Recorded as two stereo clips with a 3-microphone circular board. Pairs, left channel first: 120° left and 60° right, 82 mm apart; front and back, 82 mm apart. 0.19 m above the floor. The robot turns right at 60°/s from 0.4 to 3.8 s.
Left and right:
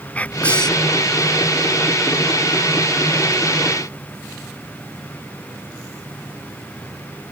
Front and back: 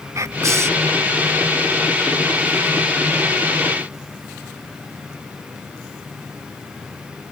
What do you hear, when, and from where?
0.1 s whispering: straight behind; by 0.9 s 150° right